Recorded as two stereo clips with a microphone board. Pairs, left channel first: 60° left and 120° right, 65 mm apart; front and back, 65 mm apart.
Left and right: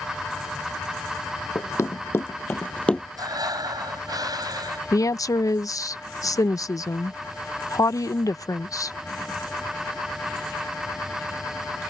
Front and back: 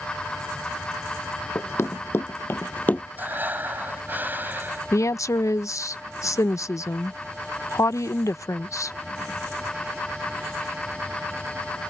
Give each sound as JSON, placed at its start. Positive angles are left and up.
{"t": 1.6, "sound": "running footsteps", "azimuth_deg": 35}
{"t": 3.2, "sound": "breathing", "azimuth_deg": -120}
{"t": 4.9, "sound": "a woman speaking", "azimuth_deg": 35}